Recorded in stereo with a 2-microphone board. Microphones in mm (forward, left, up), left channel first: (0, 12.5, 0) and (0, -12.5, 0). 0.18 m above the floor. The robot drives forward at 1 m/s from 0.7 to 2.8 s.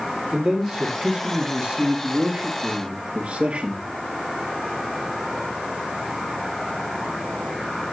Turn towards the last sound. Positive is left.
turn(degrees=-60)  # may be behind; listen again after turning